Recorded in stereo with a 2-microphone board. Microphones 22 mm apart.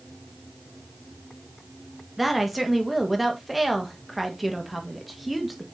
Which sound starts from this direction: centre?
A woman speaking, at 2.2 s.